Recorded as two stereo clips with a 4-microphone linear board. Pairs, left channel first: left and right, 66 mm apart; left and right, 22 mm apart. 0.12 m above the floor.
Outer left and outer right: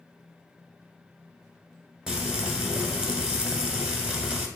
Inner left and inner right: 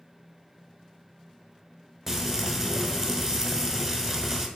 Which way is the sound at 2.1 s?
10° right (ahead or behind).